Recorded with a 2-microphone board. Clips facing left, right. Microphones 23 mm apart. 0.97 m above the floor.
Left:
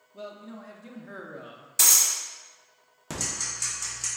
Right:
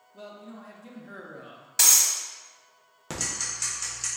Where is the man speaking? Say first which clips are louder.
Left 2 dB; 15° left (ahead or behind), 0.5 m.